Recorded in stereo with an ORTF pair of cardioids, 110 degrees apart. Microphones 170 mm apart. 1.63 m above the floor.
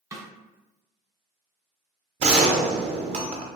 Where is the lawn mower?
No lawn mower in this recording.